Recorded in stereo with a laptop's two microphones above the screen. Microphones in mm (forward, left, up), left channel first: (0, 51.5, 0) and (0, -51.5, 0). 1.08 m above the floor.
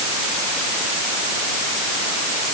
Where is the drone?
No drone in this recording.